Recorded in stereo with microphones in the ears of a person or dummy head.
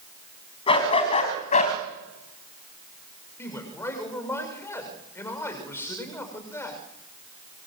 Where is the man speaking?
15° left (ahead or behind), 6.5 m.